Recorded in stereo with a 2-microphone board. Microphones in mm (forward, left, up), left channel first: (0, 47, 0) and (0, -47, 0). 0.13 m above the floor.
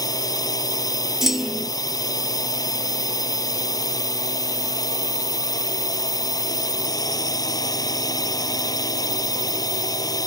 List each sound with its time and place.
0.0 s a drone: 45° left (ahead or behind)
1.2 s a clunk: 5° right (ahead or behind)